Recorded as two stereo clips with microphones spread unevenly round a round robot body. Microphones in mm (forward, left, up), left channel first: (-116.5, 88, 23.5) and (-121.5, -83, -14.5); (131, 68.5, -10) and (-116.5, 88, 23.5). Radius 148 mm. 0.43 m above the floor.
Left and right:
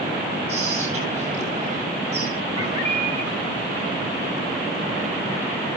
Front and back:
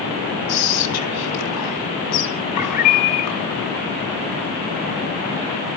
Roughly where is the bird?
Ahead.